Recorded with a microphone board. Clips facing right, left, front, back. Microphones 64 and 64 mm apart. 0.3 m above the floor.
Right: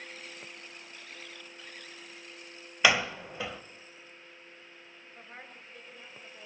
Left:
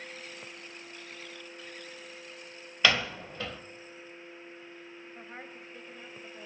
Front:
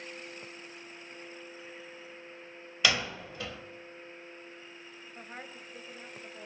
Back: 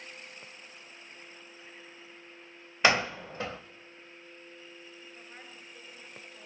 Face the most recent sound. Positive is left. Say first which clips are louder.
# left 2 dB, front 4 dB
turn(degrees=15)